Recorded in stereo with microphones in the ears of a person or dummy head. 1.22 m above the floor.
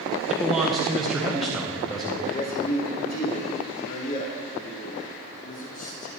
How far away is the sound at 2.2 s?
About 1.1 m.